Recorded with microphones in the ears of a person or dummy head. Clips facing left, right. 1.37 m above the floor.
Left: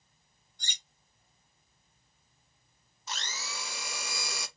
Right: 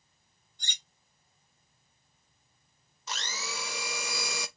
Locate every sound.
0.6 s cutlery clinking: 35° left (ahead or behind), 1.2 m
3.1 s a blender: 65° right (ahead or behind), 0.6 m